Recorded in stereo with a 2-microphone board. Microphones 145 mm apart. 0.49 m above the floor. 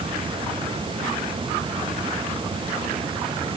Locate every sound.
Only background noise.